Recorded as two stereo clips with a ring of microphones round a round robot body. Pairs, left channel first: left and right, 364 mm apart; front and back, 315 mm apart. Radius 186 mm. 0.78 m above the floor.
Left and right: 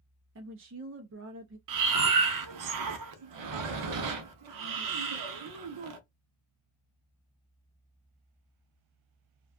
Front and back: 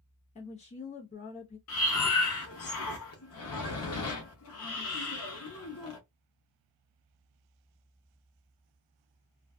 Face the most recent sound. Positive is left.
turn(degrees=-55)